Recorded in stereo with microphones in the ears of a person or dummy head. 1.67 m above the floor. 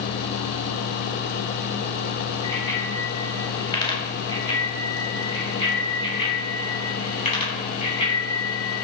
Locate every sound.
2.4 s a bicycle bell: 20° left (ahead or behind), 6 m; by 8.8 s 30° left (ahead or behind), 11.5 m